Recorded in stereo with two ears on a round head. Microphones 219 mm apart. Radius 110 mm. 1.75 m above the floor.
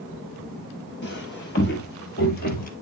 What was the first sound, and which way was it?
Footsteps, 50° left (ahead or behind).